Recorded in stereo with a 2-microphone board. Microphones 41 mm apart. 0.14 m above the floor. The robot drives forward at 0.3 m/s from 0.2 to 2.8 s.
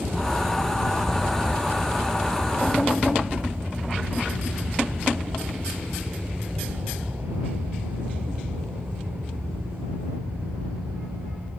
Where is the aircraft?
60° right (ahead or behind).